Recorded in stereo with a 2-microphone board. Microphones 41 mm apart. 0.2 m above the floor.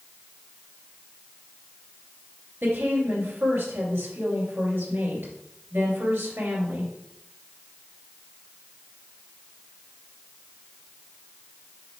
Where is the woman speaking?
70° right (ahead or behind), 3 m.